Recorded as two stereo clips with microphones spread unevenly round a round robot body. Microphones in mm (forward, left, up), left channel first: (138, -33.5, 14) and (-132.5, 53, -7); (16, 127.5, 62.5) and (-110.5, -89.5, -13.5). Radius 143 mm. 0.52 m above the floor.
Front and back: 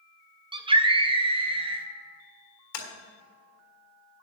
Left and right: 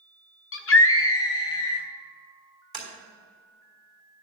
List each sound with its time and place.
0.5 s a scream: 100° left, 1.3 m; by 1.9 s 95° left, 2.5 m
2.7 s tapping: 35° right, 3 m